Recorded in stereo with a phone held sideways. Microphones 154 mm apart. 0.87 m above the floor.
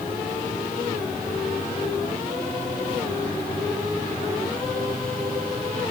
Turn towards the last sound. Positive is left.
No sound to turn to.